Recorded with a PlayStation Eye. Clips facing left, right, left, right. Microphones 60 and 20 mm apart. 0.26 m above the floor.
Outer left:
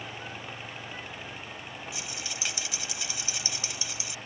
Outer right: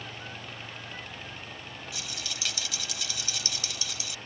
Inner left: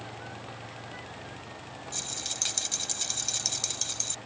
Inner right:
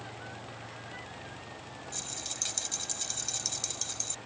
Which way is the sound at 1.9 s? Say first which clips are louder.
Outer left 1 dB, inner left 5 dB; 25° left (ahead or behind).